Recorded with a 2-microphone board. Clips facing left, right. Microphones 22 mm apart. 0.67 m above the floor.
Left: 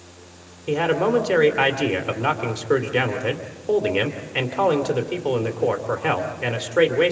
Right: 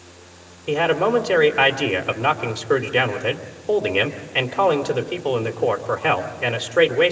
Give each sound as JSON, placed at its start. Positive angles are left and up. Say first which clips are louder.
{"t": 0.7, "sound": "a man speaking", "louder": "right 1 dB", "side_deg": -15, "distance_m": 2.0}